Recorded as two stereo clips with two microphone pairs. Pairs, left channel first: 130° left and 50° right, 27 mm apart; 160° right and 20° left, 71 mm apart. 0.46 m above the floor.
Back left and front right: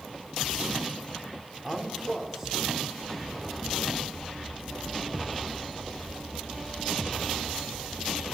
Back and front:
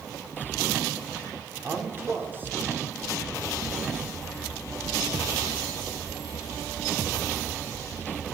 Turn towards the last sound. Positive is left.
turn(degrees=10)